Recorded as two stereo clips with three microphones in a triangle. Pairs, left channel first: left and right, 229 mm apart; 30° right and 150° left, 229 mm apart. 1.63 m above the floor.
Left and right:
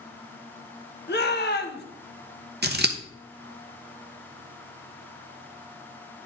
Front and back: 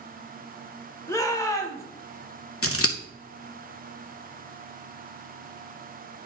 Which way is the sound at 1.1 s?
45° left.